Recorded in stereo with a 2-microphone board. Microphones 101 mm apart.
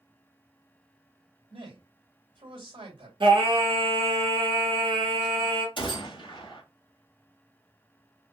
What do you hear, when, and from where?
1.5 s a man speaking: 55° right (ahead or behind), 2.5 m
3.2 s singing: 55° right (ahead or behind), 1.5 m
5.8 s a gunshot: 50° left (ahead or behind), 1.9 m